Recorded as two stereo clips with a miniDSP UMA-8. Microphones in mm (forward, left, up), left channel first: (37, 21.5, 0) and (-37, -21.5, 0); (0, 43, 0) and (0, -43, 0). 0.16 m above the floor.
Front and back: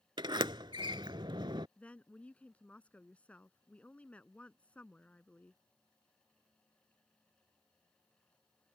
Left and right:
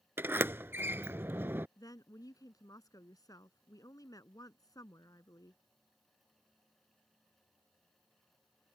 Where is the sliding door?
150° right.